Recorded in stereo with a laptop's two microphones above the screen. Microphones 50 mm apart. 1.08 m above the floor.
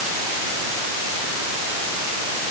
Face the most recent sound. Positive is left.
No sound to turn to.